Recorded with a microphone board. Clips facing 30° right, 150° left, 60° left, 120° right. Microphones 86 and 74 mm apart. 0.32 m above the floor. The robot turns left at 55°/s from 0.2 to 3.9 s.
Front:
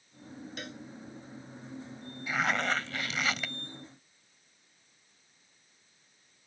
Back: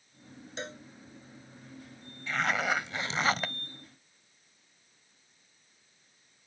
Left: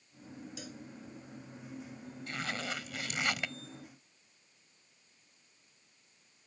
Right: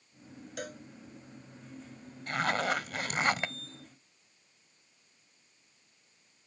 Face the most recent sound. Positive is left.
turn(degrees=165)